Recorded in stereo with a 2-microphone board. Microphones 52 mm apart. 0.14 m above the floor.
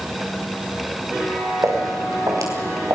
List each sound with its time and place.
1.6 s footsteps: 75° right (ahead or behind), 6 m; by 3.0 s 80° right, 5.5 m